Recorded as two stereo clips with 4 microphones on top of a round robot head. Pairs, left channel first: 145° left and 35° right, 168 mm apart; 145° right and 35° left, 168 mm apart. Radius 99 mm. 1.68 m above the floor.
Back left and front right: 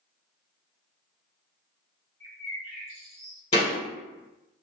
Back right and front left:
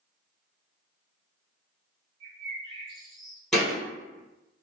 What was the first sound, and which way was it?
A bird, 15° left.